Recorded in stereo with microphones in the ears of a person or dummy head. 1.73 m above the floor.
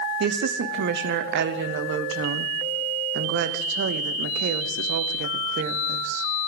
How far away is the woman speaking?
About 0.8 m.